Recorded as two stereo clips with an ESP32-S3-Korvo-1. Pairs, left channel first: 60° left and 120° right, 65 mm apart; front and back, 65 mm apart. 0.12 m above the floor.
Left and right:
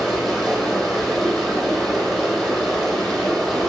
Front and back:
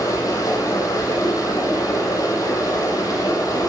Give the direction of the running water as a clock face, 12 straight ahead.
1 o'clock.